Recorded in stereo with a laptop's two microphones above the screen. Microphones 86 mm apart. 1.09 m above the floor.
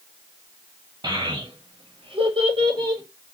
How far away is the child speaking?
About 0.9 m.